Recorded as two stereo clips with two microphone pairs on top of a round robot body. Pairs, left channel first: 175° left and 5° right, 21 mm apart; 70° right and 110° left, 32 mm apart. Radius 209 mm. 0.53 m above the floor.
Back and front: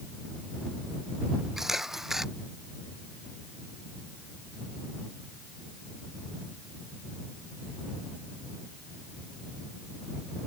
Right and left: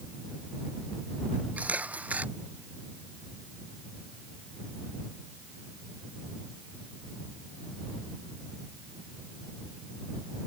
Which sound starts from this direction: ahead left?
A camera shutter, at 1.6 s.